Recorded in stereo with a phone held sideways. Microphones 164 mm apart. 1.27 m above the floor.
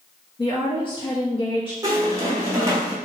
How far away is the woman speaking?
About 1.2 m.